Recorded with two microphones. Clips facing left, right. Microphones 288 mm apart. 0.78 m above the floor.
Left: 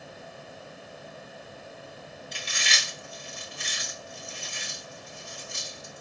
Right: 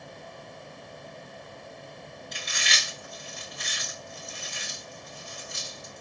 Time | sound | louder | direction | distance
2.3 | chewing | even | 30° left (ahead or behind) | 2.5 m